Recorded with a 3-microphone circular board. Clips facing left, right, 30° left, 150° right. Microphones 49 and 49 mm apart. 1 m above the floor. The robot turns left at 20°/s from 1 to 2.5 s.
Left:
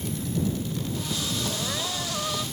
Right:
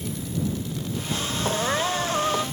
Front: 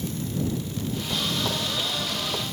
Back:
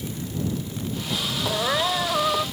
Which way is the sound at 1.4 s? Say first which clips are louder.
Right 6 dB, back 5 dB; 135° right.